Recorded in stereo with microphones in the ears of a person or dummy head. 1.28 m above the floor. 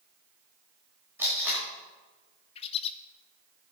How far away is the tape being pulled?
About 5.5 m.